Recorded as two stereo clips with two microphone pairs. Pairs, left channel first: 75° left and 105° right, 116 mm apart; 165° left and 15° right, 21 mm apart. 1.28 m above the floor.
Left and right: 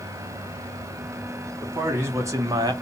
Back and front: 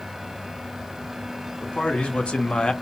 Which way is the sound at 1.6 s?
175° right.